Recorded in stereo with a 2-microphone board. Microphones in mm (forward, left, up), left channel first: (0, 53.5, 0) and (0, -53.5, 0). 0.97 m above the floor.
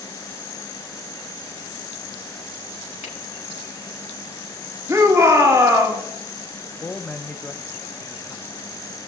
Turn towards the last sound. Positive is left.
turn(degrees=15)  # may be behind; listen again after turning